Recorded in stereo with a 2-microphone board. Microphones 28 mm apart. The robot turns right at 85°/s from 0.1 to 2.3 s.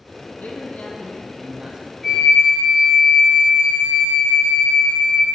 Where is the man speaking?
95° left, 1.6 m; by 1.9 s 135° right, 1.6 m.